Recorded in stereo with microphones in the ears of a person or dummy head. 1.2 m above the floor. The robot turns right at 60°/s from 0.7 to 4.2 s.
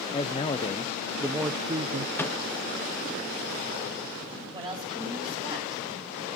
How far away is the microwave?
About 1.0 m.